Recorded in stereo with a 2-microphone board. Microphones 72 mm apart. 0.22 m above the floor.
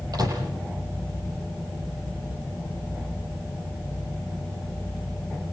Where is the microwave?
60° right (ahead or behind), 7 m.